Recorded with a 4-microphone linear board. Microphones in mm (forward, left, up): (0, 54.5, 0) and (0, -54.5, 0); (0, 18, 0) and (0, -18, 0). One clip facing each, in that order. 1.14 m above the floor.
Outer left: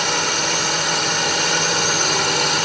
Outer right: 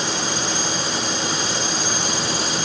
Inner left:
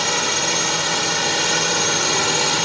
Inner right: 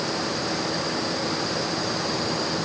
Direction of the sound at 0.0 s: 65° left (ahead or behind).